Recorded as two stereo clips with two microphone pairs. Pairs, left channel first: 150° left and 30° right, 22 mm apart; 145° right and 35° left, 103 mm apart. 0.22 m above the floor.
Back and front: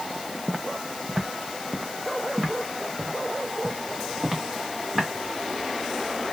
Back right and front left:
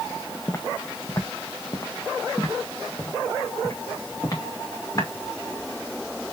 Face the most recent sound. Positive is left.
turn(degrees=-90)